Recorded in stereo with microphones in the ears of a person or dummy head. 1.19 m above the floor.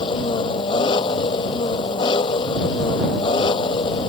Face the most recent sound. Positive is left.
turn(degrees=25)  # may be behind; listen again after turning